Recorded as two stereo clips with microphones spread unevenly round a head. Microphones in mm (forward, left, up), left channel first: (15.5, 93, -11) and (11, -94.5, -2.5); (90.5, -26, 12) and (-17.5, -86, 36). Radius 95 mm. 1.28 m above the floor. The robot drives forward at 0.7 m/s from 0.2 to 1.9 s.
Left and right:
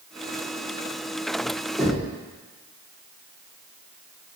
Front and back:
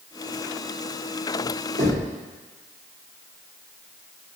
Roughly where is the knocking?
Behind.